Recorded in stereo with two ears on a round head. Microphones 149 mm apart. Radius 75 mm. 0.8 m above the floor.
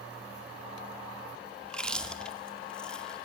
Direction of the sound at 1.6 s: 5° left (ahead or behind).